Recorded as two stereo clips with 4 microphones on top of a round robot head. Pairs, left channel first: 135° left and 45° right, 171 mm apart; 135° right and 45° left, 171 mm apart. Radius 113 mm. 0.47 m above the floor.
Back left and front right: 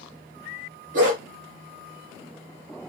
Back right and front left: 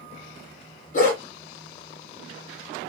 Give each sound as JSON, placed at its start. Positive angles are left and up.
{"t": 0.9, "sound": "a dog barking", "azimuth_deg": -90, "distance_m": 2.5}